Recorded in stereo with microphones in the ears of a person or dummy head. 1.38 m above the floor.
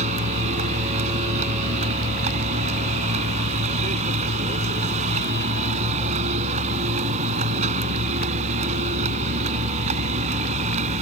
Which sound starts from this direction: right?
A vehicle, at 0.0 s.